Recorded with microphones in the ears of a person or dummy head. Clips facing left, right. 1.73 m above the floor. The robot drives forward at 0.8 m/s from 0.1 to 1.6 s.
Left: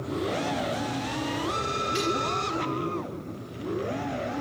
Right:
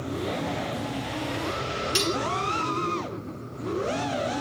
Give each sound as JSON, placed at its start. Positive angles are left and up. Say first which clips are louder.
{"t": 1.9, "sound": "cutlery clinking", "louder": "even", "side_deg": -60, "distance_m": 2.0}